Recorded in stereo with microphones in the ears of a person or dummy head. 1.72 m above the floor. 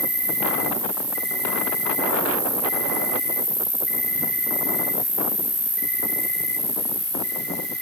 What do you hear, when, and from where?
0.0 s an insect: 50° right (ahead or behind), 4.5 m